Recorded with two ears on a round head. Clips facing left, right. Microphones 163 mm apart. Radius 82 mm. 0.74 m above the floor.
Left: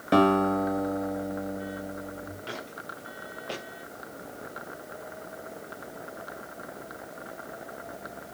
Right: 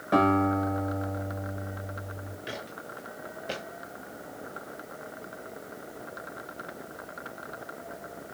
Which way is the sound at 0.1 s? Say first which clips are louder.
Left 2 dB; 35° left (ahead or behind).